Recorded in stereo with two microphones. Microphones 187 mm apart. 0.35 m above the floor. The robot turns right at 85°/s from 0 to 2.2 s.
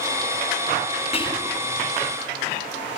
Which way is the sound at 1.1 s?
140° left.